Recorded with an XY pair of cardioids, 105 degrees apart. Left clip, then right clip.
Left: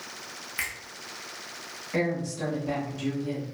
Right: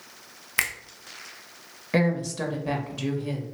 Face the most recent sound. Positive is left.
turn(degrees=-65)